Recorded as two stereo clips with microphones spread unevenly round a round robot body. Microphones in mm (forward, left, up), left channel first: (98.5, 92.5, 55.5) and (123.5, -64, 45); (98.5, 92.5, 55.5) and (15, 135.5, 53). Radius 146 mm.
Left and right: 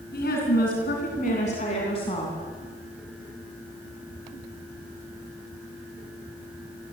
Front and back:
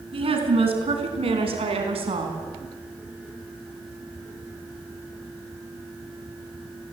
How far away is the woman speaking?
About 4.5 m.